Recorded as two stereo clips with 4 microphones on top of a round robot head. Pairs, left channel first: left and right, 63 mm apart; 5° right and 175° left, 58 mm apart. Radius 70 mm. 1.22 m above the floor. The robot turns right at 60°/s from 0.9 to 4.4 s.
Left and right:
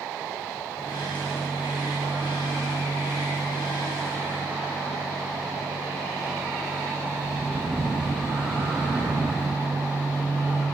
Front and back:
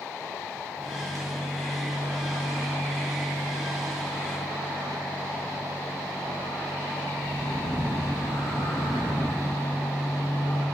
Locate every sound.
0.8 s a microwave: 135° left, 1.0 m; by 10.7 s 15° right, 1.0 m